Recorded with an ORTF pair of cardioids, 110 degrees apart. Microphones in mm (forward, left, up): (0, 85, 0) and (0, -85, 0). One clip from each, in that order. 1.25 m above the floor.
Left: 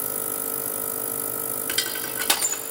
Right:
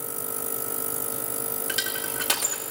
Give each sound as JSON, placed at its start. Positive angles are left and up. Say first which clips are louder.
{"t": 1.7, "sound": "crushing", "louder": "left 2 dB", "azimuth_deg": 20, "distance_m": 2.5}